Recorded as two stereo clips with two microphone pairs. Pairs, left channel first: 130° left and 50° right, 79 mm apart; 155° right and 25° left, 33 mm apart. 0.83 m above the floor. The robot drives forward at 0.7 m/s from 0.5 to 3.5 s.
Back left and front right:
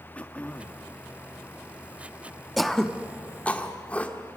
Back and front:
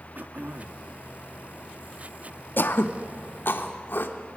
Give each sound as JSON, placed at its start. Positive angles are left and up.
{"t": 0.1, "sound": "throat clearing", "azimuth_deg": 55, "distance_m": 1.2}
{"t": 2.6, "sound": "throat clearing", "azimuth_deg": -140, "distance_m": 0.7}